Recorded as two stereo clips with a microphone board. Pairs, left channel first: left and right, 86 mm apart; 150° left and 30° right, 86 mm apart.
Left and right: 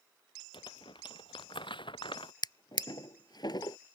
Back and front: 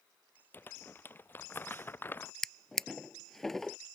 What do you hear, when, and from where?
0.5 s crumpling: 85° left
2.4 s a drawer: 65° left